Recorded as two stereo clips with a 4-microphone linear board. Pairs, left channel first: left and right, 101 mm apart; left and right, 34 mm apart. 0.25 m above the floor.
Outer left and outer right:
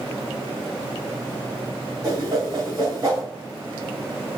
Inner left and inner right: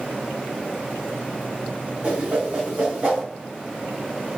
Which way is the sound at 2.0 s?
35° right (ahead or behind).